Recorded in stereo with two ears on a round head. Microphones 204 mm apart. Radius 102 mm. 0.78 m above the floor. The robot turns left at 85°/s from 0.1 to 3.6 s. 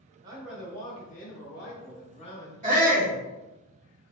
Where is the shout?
55° right, 1.2 m; by 3.1 s 95° right, 1.2 m.